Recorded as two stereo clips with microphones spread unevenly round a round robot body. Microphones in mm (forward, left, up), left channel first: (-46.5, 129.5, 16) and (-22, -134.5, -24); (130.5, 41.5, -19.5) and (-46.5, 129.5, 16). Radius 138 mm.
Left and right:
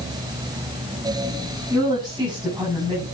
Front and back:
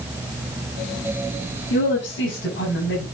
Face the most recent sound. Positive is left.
turn(degrees=-10)